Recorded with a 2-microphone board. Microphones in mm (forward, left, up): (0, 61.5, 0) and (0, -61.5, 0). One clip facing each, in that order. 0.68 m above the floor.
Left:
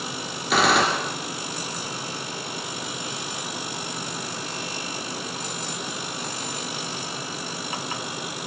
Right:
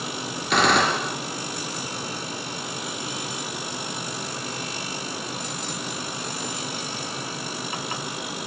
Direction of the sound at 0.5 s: 5° left (ahead or behind).